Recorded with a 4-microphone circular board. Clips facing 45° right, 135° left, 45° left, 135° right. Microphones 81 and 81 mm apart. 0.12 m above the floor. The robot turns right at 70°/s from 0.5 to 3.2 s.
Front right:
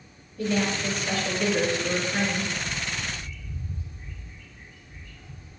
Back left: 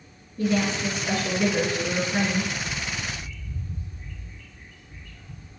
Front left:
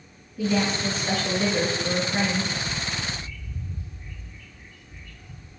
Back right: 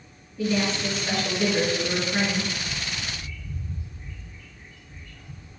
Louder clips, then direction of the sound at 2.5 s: Back left 1 dB, front left 3 dB; 155° right.